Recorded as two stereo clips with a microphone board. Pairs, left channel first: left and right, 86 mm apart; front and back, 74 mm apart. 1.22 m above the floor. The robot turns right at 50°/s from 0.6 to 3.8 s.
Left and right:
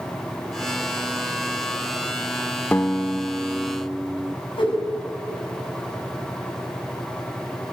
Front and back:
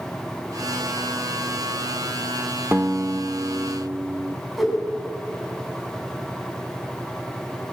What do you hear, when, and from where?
2.7 s a guitar: 140° left, 0.9 m; by 4.4 s 165° right, 0.9 m
4.6 s a whoosh: 90° left, 6.5 m